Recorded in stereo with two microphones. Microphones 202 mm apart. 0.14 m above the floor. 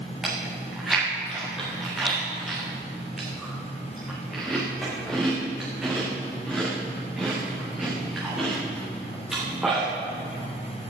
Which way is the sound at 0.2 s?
5° right (ahead or behind).